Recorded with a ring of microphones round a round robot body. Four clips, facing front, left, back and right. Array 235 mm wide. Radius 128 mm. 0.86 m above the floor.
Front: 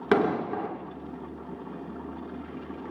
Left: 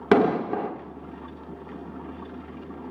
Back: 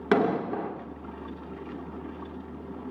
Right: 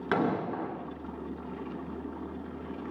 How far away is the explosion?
About 1.3 m.